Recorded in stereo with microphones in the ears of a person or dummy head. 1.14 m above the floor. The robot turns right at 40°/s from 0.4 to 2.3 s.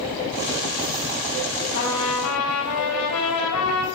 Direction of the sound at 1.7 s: 65° left (ahead or behind).